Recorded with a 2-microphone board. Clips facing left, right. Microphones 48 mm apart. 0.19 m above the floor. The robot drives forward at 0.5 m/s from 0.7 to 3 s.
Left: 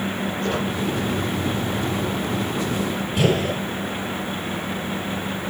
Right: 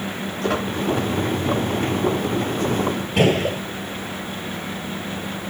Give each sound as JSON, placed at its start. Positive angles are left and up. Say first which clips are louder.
{"t": 0.4, "sound": "a squeak", "louder": "right 3 dB", "side_deg": -85, "distance_m": 8.0}
{"t": 3.2, "sound": "a gunshot", "louder": "right 2 dB", "side_deg": -70, "distance_m": 7.5}